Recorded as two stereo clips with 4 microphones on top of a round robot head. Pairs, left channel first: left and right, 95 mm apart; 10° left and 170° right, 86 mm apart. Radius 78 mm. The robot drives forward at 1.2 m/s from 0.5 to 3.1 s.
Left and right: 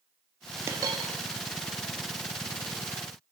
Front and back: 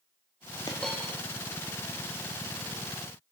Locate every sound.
0.7 s a dropped coin: 40° right, 0.6 m; by 1.2 s 140° right, 0.6 m